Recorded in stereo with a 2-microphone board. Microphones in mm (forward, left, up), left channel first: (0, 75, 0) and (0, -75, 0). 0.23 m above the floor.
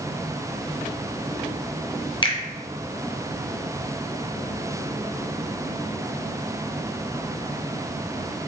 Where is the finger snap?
35° left (ahead or behind), 0.9 m.